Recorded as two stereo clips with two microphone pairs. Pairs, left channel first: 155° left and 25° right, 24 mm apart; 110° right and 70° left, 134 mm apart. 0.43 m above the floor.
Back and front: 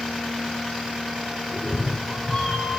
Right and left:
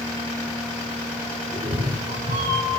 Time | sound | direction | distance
1.5 | a cat meowing | 95° left | 4 m